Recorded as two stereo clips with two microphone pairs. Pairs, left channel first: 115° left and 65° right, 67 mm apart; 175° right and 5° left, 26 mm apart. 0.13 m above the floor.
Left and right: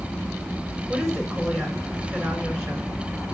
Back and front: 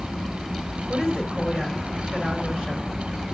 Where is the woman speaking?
5° left, 2.0 m.